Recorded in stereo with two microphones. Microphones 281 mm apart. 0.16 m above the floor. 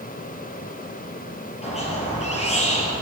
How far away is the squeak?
About 2.5 m.